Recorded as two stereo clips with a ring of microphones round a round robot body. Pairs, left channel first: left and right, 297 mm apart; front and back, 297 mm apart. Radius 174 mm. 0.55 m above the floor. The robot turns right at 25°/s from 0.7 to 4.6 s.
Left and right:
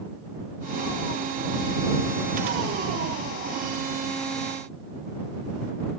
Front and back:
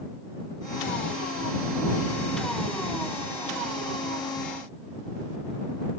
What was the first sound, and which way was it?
Only background noise.